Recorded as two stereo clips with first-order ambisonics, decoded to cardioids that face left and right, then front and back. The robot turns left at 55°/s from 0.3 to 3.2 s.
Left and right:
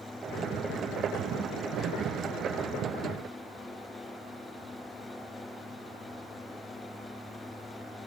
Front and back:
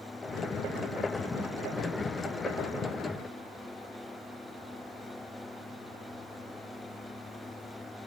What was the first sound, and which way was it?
Only background noise.